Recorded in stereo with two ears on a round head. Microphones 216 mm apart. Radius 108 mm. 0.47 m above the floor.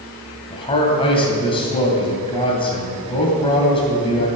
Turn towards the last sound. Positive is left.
turn(degrees=25)  # may be behind; listen again after turning